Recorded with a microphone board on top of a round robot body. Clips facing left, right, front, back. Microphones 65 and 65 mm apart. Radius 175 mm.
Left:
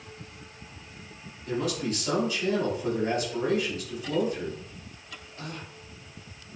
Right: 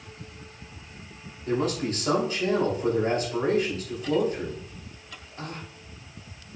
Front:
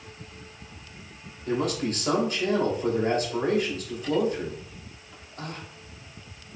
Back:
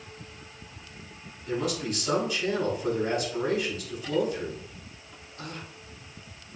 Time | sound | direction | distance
1.5 | a man speaking | 40° right | 5 m